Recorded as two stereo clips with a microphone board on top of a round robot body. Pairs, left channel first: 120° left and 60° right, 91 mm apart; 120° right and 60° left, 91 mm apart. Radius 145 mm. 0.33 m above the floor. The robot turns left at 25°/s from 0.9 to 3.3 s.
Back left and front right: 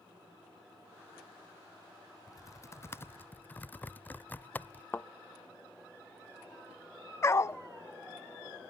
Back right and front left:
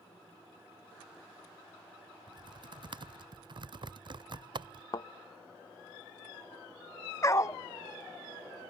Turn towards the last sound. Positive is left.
turn(degrees=180)